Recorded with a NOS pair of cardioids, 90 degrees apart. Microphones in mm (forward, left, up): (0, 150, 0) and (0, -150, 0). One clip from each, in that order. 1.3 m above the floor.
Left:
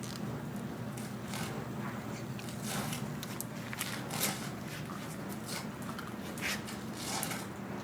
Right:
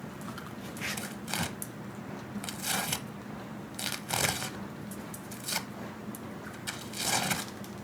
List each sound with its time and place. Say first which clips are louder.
1.0 s tearing paper: right 6 dB; 55° right, 1.2 m